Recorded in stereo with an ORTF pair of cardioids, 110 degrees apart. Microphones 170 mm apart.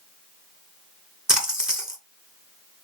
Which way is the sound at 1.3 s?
5° right.